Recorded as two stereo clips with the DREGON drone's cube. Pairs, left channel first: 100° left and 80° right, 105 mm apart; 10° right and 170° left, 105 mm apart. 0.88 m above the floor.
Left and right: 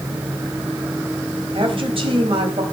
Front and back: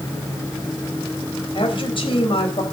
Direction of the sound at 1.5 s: 45° right.